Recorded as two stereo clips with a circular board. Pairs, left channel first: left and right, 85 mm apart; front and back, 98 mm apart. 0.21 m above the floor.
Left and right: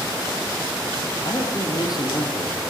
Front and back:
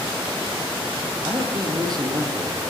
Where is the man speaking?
130° left, 6.5 m.